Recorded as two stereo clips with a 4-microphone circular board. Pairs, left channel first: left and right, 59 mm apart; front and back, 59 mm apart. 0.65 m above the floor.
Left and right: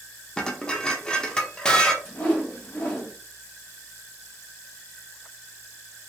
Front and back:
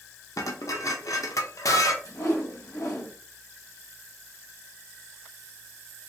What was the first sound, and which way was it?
Dishes clattering, 15° left.